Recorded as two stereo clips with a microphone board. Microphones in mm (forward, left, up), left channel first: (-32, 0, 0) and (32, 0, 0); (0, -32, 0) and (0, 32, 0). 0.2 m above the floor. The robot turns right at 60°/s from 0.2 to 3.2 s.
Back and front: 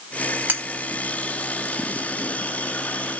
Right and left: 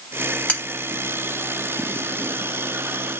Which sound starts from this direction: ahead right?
Cutlery clinking, at 0.5 s.